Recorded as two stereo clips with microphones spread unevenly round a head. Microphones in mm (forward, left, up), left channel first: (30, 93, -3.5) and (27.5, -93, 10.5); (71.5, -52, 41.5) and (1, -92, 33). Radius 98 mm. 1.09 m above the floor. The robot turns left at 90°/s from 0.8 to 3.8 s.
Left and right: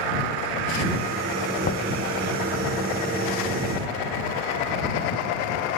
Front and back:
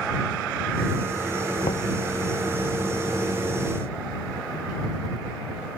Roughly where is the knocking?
Ahead left.